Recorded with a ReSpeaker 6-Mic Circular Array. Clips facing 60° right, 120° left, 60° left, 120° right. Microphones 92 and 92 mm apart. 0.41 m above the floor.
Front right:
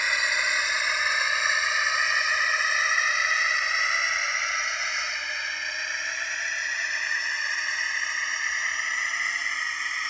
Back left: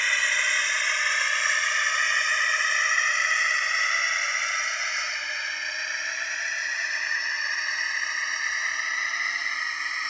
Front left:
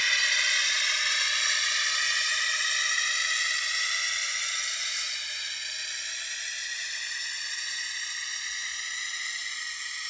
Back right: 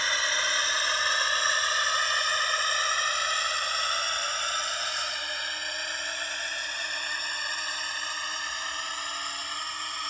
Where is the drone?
130° right; by 10.1 s 155° right.